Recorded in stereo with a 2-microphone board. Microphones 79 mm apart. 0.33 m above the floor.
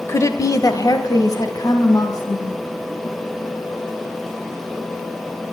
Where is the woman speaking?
35° left (ahead or behind), 1.0 m; by 2.6 s 45° left (ahead or behind), 3 m.